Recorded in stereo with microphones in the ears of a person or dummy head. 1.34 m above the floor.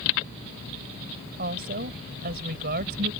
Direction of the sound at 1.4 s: 55° right (ahead or behind).